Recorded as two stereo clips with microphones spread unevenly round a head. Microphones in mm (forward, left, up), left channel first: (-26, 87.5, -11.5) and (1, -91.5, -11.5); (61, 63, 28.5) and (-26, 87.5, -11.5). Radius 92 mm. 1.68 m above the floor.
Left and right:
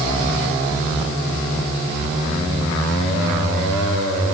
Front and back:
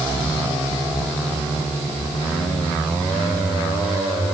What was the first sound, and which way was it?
Only background noise.